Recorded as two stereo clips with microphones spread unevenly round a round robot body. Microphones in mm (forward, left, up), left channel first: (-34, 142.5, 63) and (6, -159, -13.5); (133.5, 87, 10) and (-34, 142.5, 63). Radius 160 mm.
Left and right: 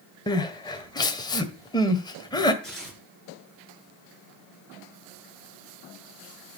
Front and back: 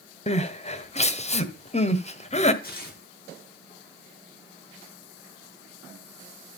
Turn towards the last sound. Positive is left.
turn(degrees=5)